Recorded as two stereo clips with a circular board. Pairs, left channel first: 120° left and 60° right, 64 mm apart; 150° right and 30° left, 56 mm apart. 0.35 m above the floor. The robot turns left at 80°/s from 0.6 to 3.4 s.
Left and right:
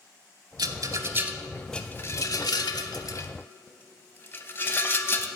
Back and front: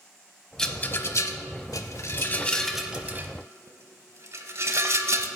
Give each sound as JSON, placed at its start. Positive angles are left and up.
{"t": 0.6, "sound": "a rattle", "azimuth_deg": -70, "distance_m": 0.7}